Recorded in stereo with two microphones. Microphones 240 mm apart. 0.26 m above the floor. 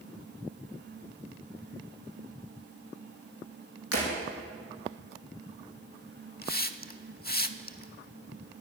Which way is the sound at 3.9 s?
75° right (ahead or behind).